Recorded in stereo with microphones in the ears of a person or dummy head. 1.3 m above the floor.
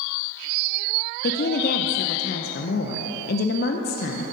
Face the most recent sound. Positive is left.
turn(degrees=55)  # may be behind; listen again after turning